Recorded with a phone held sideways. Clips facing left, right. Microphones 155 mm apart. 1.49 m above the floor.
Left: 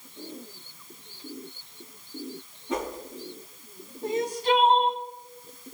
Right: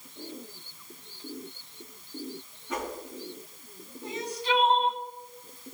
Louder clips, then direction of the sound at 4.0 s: Left 6 dB; 45° left (ahead or behind).